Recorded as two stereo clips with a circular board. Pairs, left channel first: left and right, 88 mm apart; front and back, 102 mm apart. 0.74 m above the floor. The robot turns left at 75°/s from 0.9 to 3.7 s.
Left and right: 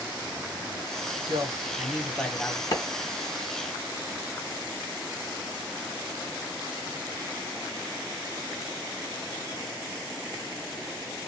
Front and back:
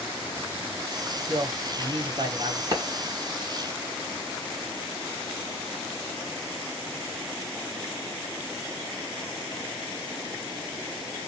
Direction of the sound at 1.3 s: 115° right.